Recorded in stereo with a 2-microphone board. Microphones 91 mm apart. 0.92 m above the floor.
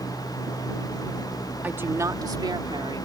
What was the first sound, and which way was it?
A woman speaking, 20° right (ahead or behind).